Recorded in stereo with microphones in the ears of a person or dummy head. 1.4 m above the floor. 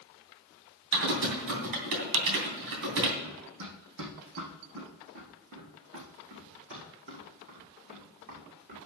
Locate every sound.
0.9 s typing on a keyboard: 65° right (ahead or behind), 2.5 m
3.2 s running footsteps: 70° right (ahead or behind), 4 m; by 8.8 s 40° right (ahead or behind), 6 m